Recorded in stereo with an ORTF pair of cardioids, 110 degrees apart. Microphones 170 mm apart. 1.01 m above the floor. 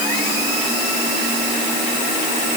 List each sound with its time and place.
Only background noise.